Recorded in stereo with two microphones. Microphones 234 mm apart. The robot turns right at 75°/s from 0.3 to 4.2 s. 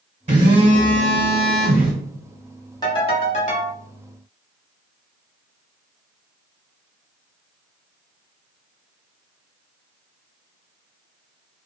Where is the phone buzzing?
125° right, 1.1 m; by 1.9 s straight ahead, 1.1 m.